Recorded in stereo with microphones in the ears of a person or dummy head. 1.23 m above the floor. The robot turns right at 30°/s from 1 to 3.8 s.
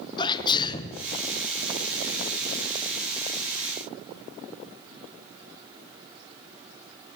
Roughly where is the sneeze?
Left.